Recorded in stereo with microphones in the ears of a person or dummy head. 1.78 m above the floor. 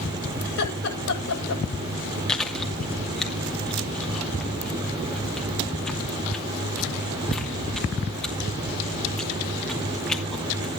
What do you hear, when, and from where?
0.5 s laughter: 80° left, 8.5 m
2.3 s chewing: 5° left (ahead or behind), 2.5 m